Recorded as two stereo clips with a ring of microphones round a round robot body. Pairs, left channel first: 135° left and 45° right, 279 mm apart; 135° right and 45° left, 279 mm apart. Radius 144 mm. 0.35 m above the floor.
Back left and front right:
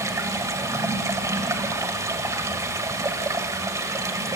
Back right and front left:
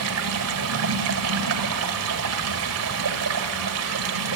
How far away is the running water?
About 1.6 m.